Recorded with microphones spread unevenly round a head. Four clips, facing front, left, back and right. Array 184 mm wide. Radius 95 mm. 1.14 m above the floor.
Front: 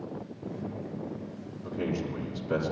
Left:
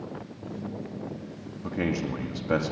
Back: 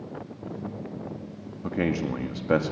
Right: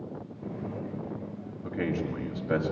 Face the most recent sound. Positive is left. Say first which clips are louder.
# left 2 dB, back 5 dB
turn(degrees=165)